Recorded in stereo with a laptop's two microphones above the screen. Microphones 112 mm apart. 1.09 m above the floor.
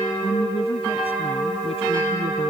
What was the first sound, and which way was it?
A woman speaking, 60° left (ahead or behind).